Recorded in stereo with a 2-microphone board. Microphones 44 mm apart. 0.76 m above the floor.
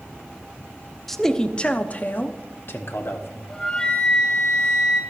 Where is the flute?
20° left (ahead or behind), 1.6 m.